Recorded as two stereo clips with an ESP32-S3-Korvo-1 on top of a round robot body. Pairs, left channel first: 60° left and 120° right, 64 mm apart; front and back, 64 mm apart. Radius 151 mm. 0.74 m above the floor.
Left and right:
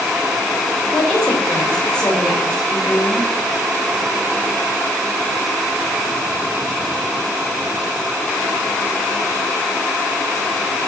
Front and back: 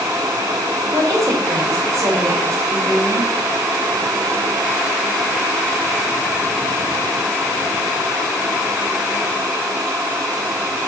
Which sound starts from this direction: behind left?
A woman speaking, at 0.9 s.